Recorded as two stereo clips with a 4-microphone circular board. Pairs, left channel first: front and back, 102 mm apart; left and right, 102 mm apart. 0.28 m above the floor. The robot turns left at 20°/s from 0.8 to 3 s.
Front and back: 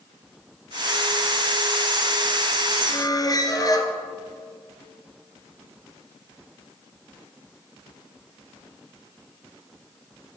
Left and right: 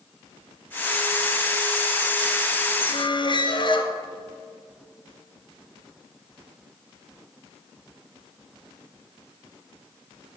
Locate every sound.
2.9 s a squeak: 55° left, 1.2 m